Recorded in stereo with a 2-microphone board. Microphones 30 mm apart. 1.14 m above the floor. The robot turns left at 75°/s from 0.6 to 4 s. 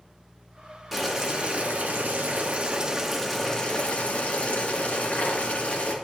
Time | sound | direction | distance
0.9 | boiling | 5° right | 1.3 m